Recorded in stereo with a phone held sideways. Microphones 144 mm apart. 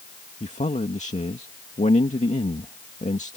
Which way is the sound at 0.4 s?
60° left (ahead or behind).